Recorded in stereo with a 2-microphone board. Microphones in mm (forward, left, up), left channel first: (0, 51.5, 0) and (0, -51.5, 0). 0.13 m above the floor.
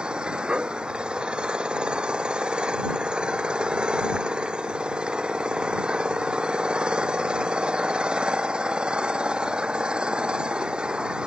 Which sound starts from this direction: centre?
An engine running, at 0.0 s.